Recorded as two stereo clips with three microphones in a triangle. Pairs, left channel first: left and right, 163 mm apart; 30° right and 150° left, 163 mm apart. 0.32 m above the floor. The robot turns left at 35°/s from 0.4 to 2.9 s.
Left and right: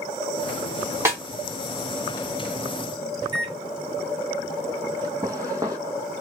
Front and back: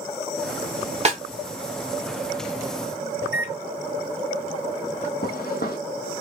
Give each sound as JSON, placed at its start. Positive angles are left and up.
{"t": 1.1, "sound": "a snare drum", "azimuth_deg": -160, "distance_m": 0.8}
{"t": 3.2, "sound": "a microwave", "azimuth_deg": -80, "distance_m": 0.7}
{"t": 5.2, "sound": "footsteps", "azimuth_deg": -20, "distance_m": 0.8}